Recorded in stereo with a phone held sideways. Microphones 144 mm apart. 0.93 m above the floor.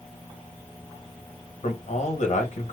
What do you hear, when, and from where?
1.6 s a man speaking: 55° left (ahead or behind), 1.3 m